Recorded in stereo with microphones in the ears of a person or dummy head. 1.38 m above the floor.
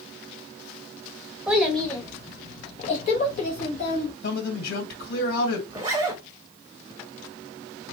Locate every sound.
1.5 s a child speaking: 5° right (ahead or behind), 0.7 m; by 4.1 s 45° left (ahead or behind), 1.2 m
4.2 s a man speaking: 60° left (ahead or behind), 2 m
5.7 s a zipper: 20° right (ahead or behind), 0.8 m